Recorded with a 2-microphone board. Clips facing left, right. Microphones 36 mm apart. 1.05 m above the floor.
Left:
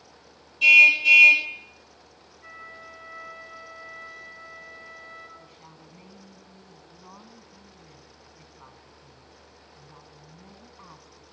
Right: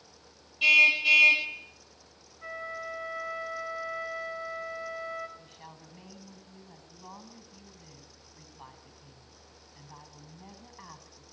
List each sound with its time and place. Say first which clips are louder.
0.6 s a car horn: left 6 dB; 20° right (ahead or behind), 4 m
2.4 s a flute: right 6 dB; 85° right, 5.5 m
5.4 s a woman speaking: left 1 dB; 60° right (ahead or behind), 9.5 m